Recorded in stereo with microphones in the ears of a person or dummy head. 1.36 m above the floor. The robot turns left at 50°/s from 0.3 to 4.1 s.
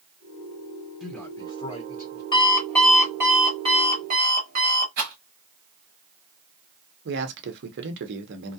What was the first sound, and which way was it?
A man speaking, straight behind.